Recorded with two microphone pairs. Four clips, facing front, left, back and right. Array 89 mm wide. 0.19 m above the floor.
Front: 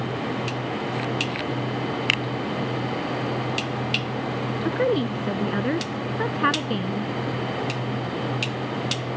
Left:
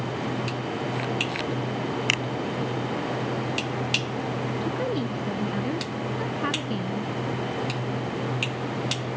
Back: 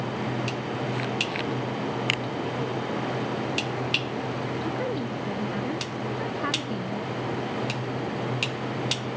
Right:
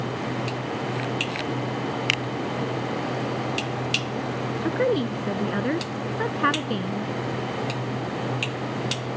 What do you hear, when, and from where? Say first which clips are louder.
2.1 s a finger snap: even, front 3 dB; 15° left
4.6 s a woman speaking: right 8 dB, front 11 dB; 45° right